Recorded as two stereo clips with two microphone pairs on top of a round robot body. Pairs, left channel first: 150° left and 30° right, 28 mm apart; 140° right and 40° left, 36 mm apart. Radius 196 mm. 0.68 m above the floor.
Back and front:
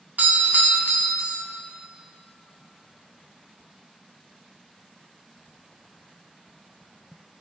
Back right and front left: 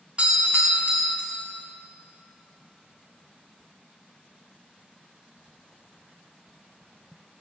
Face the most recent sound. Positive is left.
turn(degrees=-15)